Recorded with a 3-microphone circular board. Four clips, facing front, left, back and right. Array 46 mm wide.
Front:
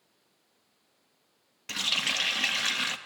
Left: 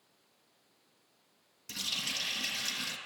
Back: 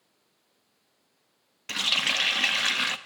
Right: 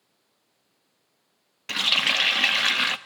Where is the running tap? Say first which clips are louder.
Right 15 dB, back 3 dB; 105° right, 1.0 m.